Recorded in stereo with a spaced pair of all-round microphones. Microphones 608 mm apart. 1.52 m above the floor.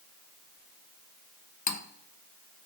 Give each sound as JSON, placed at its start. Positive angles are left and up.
{"t": 1.7, "sound": "cutlery clinking", "side_deg": 30, "distance_m": 0.6}